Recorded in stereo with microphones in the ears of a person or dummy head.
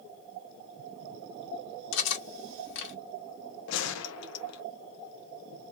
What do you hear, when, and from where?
1.9 s cutlery clinking: 75° left (ahead or behind), 1.7 m
3.7 s a gunshot: 70° left (ahead or behind), 0.6 m